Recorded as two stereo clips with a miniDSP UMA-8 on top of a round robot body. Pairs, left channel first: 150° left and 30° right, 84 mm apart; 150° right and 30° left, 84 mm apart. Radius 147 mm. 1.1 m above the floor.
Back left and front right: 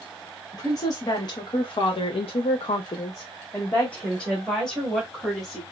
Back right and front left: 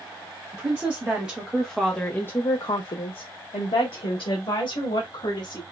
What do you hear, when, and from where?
0.5 s a woman speaking: 100° left, 1.3 m; by 5.6 s 120° right, 1.9 m